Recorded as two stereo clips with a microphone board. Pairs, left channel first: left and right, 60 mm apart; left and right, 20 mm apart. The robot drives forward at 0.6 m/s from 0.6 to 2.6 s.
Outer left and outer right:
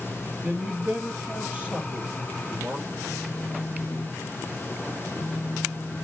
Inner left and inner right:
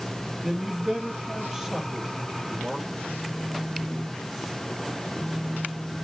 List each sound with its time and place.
0.4 s a man speaking: 25° right (ahead or behind), 4 m; by 2.9 s 20° right (ahead or behind), 5 m
3.0 s a phone buzzing: 35° right (ahead or behind), 1.6 m